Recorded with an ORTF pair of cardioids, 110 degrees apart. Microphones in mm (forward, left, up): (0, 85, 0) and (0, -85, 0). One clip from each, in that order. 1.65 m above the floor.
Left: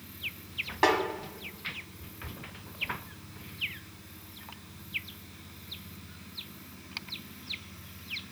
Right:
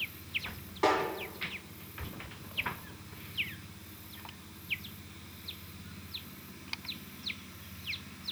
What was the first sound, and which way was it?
A snare drum, 60° left.